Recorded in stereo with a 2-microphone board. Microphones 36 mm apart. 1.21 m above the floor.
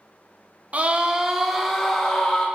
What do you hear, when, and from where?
0.7 s a scream: 40° right (ahead or behind), 0.8 m; by 2.5 s 20° left (ahead or behind), 1.6 m